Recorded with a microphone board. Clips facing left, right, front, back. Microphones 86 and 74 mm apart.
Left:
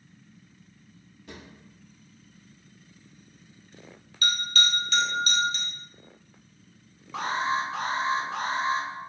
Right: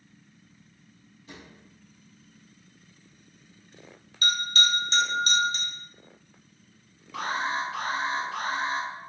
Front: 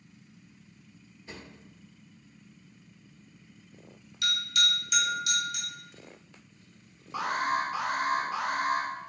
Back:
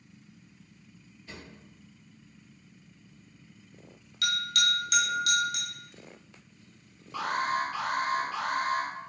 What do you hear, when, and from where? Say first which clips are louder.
1.3 s a drawer: left 2 dB, front 1 dB; 70° left, 1.3 m
4.2 s a bell: right 1 dB, back 2 dB; 150° right, 1.3 m
7.1 s an alarm: left 2 dB, even; 55° left, 1.0 m